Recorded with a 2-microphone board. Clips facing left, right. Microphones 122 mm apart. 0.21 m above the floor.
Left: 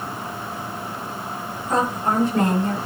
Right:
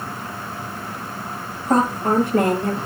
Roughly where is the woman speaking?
Right.